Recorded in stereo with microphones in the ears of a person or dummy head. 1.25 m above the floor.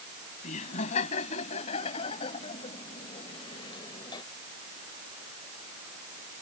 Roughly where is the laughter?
Left.